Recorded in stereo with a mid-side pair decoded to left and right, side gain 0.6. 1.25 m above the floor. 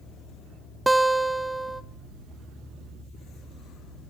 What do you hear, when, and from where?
0.9 s a guitar: 10° right, 1.0 m